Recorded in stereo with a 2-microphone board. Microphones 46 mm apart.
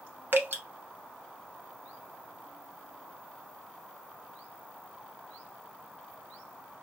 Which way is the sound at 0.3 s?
50° right (ahead or behind).